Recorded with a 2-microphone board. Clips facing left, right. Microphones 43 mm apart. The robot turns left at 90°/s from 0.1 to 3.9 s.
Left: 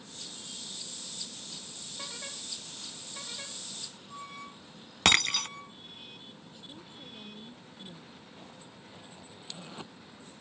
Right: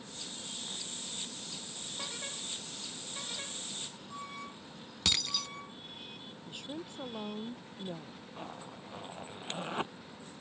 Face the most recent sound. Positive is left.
turn(degrees=-40)  # may be behind; listen again after turning